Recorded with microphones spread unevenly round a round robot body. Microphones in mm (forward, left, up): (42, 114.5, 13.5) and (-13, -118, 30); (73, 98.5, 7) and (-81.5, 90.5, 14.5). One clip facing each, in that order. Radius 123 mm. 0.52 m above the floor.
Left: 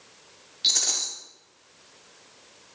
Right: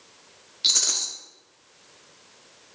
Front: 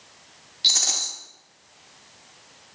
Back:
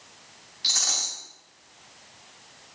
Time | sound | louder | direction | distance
0.6 | a rattle | even, front 1 dB | 30° right | 1.0 m